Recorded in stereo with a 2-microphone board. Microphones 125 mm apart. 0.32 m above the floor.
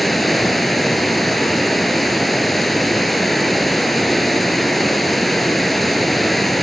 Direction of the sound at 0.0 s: Centre (ahead or behind).